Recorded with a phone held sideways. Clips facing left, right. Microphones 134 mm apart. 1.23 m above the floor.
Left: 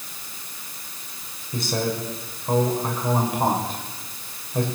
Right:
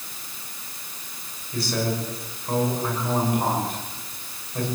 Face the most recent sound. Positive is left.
turn(degrees=25)  # may be behind; listen again after turning